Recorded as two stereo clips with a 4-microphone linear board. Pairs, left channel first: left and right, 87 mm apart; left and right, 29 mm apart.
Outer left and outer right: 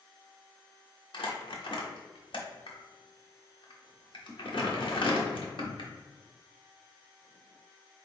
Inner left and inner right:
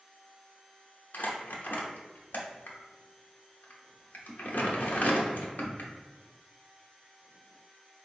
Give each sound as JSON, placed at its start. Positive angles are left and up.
{"t": 1.1, "sound": "crumpling", "side_deg": 70, "distance_m": 0.9}